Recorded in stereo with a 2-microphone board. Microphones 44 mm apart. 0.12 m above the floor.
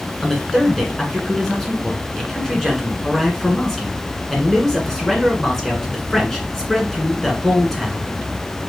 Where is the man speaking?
10° left (ahead or behind), 1.5 m.